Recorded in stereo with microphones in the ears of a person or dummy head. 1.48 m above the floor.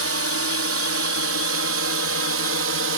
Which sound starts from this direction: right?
A drone, at 0.0 s.